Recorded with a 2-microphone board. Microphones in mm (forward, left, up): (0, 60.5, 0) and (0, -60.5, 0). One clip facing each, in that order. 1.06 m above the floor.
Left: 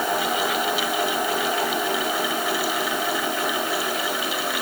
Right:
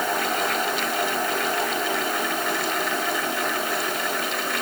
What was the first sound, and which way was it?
Only background noise.